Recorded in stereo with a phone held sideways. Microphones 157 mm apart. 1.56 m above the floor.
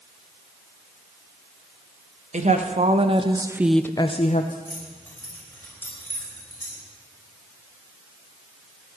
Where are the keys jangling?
15° left (ahead or behind), 5 m.